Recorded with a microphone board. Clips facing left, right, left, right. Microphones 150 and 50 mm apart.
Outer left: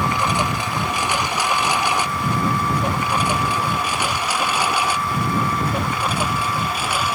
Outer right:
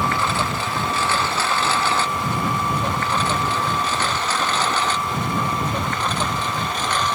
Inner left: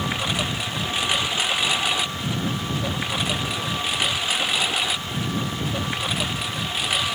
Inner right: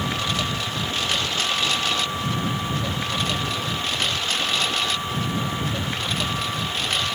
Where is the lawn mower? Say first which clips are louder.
Outer left 1 dB, even; 15° left (ahead or behind); by 7.2 s 10° left (ahead or behind).